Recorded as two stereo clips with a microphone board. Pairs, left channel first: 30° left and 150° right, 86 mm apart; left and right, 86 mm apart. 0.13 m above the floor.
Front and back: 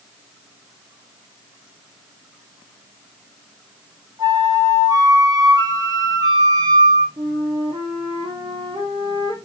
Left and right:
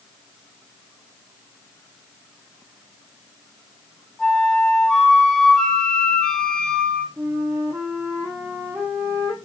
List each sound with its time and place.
4.2 s a flute: 170° left, 1.0 m
7.2 s a flute: 150° right, 1.2 m